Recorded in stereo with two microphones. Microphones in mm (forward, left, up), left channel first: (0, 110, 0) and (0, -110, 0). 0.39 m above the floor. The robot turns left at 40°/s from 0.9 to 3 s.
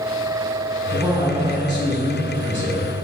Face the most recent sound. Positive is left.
turn(degrees=-95)